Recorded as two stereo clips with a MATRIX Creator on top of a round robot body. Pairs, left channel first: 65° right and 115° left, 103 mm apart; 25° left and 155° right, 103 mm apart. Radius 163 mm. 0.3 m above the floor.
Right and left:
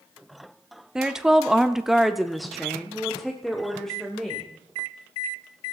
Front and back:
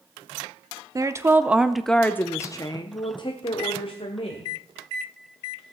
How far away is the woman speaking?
About 1.2 m.